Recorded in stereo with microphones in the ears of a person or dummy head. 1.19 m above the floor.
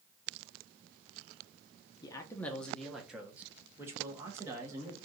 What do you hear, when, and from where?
2.0 s a man speaking: 25° left (ahead or behind), 0.6 m; by 5.0 s 20° right (ahead or behind), 1.8 m